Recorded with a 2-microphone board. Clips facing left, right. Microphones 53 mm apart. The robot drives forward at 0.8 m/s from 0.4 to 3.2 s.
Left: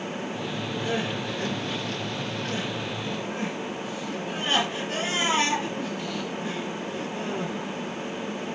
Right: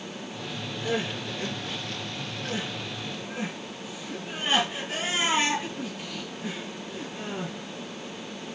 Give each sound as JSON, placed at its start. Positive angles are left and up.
{"t": 0.8, "sound": "crying", "side_deg": -10, "distance_m": 6.5}